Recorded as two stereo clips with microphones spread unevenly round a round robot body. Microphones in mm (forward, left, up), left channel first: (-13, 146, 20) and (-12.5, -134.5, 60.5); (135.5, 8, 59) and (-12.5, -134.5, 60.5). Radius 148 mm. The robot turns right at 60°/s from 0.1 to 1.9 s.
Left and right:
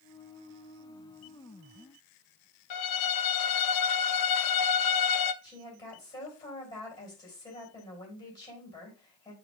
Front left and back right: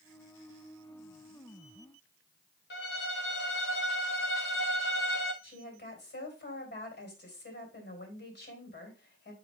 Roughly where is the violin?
Left.